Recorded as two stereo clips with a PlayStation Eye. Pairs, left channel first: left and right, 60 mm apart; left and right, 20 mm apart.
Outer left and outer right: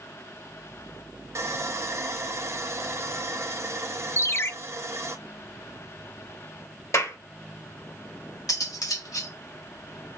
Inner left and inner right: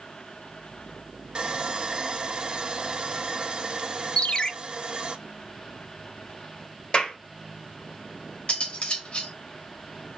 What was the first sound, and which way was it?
Sawing, 50° right (ahead or behind).